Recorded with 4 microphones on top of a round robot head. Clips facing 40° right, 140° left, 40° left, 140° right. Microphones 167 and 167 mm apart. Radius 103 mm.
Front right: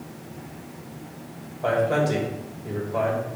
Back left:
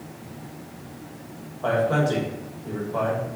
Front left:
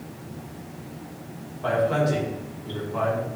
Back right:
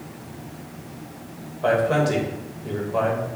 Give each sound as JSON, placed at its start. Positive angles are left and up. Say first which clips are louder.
{"t": 1.6, "sound": "a man speaking", "louder": "even, back right 3 dB", "azimuth_deg": -115, "distance_m": 2.5}